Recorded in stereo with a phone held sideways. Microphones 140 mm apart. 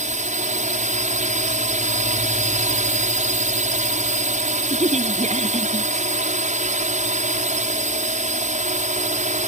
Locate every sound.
0.0 s a drone: 60° right (ahead or behind)
4.7 s a woman speaking: 50° right (ahead or behind)